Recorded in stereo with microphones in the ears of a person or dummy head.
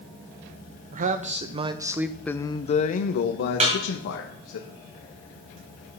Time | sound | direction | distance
0.9 | a man speaking | 50° right (ahead or behind) | 0.9 m
3.6 | a snare drum | 40° right (ahead or behind) | 2.5 m